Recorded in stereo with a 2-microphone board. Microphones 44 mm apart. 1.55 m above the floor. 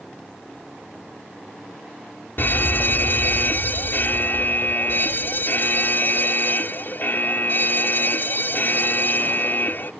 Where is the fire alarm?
50° left (ahead or behind).